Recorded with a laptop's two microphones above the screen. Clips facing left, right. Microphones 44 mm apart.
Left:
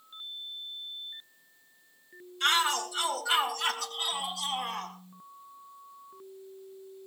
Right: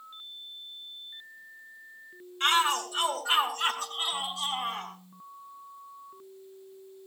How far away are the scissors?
No scissors in this recording.